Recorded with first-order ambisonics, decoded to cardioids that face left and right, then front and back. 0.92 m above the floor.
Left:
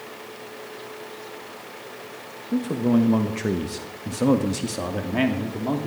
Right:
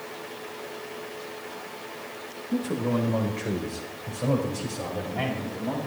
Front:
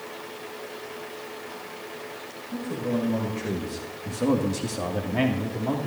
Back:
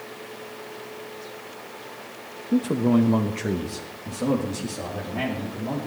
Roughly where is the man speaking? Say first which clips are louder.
Left 4 dB, back 7 dB; behind.